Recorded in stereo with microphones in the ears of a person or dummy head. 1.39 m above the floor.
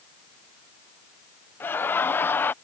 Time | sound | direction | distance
1.6 | laughter | 15° left (ahead or behind) | ?